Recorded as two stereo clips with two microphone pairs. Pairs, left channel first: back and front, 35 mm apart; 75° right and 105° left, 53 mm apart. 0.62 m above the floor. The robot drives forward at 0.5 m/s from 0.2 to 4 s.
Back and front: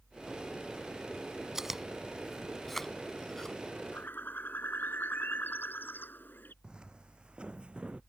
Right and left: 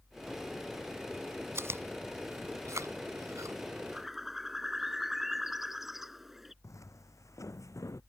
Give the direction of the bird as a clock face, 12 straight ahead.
6 o'clock.